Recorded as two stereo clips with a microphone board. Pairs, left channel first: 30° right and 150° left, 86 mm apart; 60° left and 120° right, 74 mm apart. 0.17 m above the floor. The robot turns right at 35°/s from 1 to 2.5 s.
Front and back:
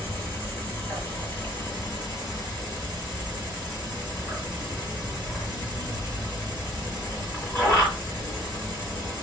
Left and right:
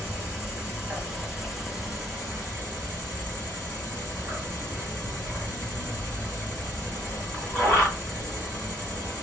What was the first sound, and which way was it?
An insect, 60° right.